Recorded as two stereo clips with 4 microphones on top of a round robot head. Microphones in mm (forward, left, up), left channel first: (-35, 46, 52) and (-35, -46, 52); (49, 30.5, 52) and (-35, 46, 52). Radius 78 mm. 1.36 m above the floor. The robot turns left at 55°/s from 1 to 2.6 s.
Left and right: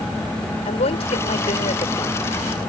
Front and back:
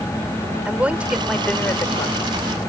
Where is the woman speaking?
95° left; by 2.3 s 25° left.